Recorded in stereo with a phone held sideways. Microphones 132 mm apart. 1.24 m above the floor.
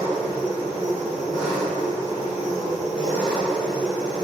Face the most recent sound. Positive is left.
turn(degrees=-5)  # may be behind; listen again after turning